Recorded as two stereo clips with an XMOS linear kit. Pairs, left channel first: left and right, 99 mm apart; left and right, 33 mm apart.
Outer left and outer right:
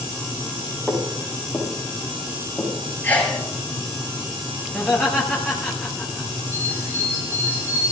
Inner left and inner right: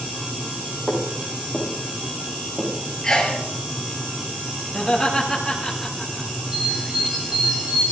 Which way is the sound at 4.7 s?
5° left (ahead or behind).